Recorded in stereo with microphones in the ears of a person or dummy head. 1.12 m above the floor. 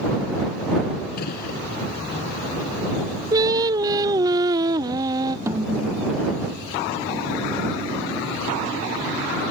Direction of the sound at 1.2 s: 55° left (ahead or behind).